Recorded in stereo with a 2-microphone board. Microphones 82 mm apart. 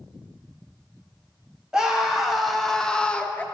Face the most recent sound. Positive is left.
turn(degrees=15)  # may be behind; listen again after turning